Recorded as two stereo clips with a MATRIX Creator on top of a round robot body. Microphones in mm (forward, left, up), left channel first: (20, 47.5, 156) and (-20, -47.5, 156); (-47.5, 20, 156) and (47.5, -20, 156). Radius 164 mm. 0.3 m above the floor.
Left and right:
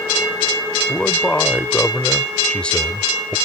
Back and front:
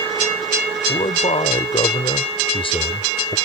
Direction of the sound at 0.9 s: 145° left.